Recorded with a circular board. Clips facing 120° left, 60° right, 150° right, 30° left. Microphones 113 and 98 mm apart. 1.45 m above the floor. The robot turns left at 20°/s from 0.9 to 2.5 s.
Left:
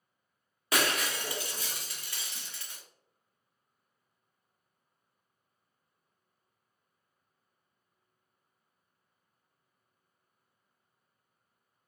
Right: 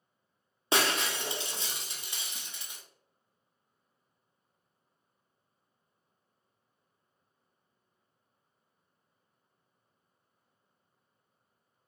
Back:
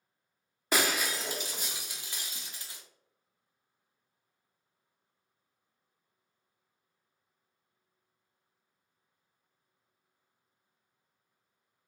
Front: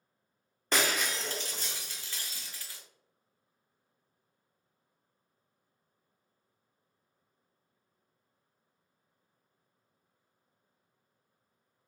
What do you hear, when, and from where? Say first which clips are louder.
0.7 s breaking glass: right 1 dB, back 1 dB; 75° right, 0.7 m; by 2.8 s 105° right, 0.7 m